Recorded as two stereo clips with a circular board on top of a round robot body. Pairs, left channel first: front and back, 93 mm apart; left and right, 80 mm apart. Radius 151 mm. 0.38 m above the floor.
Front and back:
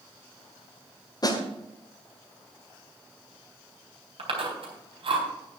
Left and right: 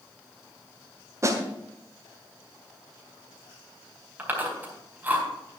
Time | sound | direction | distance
1.2 | a snare drum | 40° right | 1.8 m
4.2 | chewing | 160° right | 4 m